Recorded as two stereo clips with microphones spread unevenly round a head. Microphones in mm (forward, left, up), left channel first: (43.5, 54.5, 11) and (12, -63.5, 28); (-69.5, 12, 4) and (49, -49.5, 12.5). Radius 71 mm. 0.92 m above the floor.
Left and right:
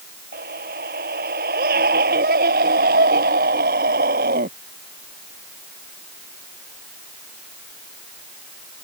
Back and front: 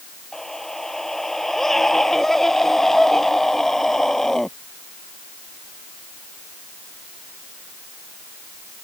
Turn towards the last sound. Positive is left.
turn(degrees=-120)